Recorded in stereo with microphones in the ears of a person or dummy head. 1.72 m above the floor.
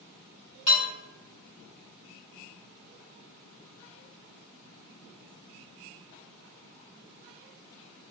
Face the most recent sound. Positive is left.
turn(degrees=45)  # may be behind; listen again after turning